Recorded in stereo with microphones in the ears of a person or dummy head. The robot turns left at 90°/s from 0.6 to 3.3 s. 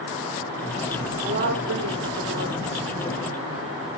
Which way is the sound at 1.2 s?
30° right.